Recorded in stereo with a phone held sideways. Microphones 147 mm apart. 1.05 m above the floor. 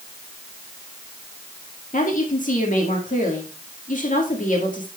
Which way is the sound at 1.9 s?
60° left (ahead or behind).